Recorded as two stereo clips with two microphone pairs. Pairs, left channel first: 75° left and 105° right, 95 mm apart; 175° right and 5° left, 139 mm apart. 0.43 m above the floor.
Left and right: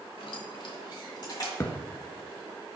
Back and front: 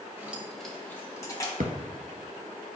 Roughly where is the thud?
Ahead.